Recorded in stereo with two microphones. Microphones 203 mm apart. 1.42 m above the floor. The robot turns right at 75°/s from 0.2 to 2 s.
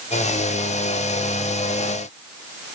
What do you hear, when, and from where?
Only background noise.